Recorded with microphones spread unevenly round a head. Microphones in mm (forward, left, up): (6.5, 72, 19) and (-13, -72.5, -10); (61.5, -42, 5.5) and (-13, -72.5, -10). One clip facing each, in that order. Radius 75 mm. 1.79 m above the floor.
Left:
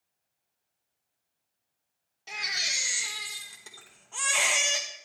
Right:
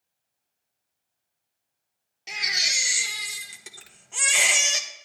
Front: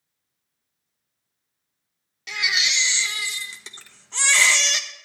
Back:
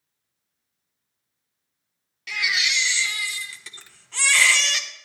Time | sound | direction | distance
2.3 | a baby crying | 25° right | 0.9 m
3.8 | a finger snap | 90° right | 1.7 m